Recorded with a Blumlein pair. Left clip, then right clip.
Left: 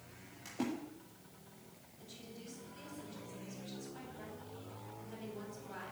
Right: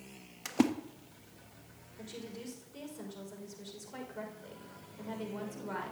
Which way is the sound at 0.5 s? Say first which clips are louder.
Right 10 dB; 35° right.